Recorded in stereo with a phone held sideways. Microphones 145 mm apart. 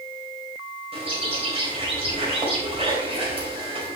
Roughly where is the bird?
Right.